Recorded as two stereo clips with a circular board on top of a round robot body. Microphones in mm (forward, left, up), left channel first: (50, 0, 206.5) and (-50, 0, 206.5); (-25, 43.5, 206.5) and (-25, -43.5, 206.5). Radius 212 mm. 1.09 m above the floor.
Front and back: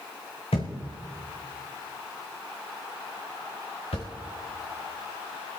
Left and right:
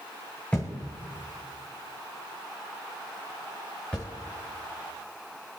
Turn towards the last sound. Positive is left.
turn(degrees=15)